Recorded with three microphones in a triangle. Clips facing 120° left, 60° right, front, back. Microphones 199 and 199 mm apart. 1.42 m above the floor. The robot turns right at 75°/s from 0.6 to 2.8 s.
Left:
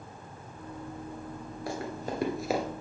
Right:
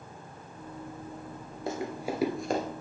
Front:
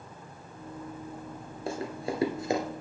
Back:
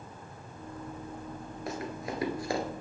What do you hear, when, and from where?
1.7 s running footsteps: 20° right, 1.5 m; by 2.6 s 55° left, 1.5 m